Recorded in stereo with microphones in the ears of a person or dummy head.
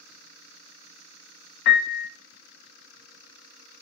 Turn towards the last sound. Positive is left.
turn(degrees=55)  # may be behind; listen again after turning